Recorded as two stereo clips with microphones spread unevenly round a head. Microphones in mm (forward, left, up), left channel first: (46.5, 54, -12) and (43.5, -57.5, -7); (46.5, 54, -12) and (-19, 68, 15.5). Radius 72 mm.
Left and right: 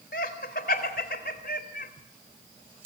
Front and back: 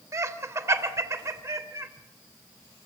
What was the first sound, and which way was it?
Laughter, 120° left.